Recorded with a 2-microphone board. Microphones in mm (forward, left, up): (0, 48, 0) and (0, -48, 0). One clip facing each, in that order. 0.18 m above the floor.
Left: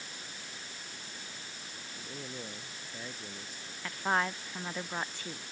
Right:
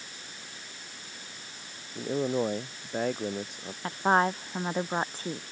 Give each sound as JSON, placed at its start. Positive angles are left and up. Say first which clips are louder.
{"t": 1.9, "sound": "a man speaking", "louder": "right 17 dB", "side_deg": -65}
{"t": 3.8, "sound": "a woman speaking", "louder": "right 7 dB", "side_deg": -35}